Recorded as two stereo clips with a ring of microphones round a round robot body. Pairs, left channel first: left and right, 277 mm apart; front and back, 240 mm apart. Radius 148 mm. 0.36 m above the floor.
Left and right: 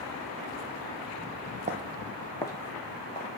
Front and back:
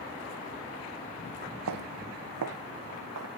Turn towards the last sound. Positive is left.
turn(degrees=160)